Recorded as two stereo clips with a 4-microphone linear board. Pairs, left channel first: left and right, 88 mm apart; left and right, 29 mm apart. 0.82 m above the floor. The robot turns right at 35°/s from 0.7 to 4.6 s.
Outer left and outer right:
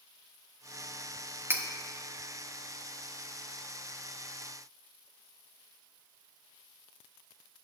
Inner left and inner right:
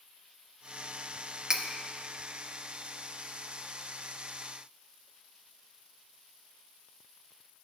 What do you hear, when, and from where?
1.5 s cutlery clinking: 25° right (ahead or behind), 0.5 m; by 1.6 s 30° right (ahead or behind), 0.5 m